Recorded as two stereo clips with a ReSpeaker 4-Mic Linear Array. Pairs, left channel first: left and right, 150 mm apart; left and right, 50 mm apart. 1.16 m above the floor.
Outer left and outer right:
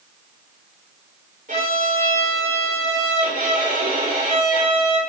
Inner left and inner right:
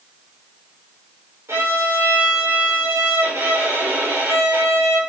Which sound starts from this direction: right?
A violin, at 1.5 s.